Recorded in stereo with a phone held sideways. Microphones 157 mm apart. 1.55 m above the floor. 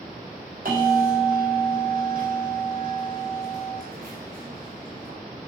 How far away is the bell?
About 3.5 m.